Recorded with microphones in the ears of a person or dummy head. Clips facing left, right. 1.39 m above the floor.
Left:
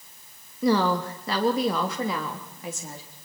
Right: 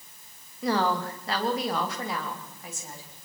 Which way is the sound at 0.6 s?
85° left.